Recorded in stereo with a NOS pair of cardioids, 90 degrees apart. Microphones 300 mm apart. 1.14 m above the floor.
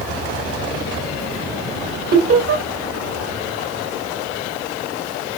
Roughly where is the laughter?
Ahead right.